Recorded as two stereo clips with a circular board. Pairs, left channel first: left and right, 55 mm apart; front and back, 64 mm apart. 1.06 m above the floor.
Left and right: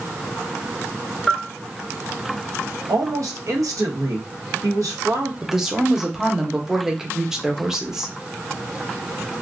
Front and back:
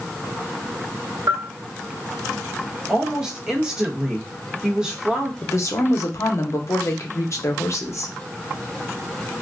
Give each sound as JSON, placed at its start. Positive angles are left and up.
{"t": 1.3, "sound": "a bell", "azimuth_deg": 180, "distance_m": 0.8}
{"t": 2.9, "sound": "a woman speaking", "azimuth_deg": -105, "distance_m": 0.9}
{"t": 5.4, "sound": "a woman speaking", "azimuth_deg": -10, "distance_m": 0.7}